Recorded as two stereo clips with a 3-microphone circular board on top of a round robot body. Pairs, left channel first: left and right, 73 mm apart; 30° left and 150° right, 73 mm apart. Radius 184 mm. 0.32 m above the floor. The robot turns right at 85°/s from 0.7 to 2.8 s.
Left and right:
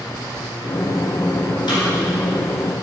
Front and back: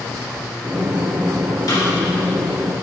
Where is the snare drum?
65° left, 2 m; by 1.9 s 85° left, 2 m.